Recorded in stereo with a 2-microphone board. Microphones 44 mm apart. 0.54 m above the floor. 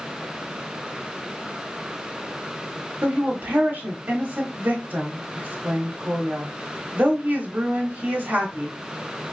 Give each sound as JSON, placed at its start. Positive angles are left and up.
{"t": 3.0, "sound": "a woman speaking", "side_deg": -40, "distance_m": 1.2}